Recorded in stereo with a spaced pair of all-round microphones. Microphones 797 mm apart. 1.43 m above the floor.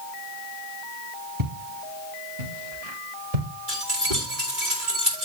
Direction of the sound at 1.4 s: 25° right (ahead or behind).